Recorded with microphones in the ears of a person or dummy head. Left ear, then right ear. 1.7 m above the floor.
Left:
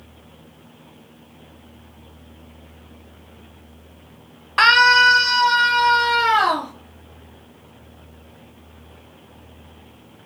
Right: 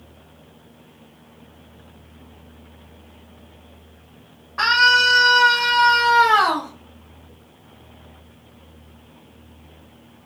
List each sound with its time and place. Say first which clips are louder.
4.6 s a scream: left 3 dB; 35° left (ahead or behind), 0.6 m; by 6.7 s 65° right (ahead or behind), 1.2 m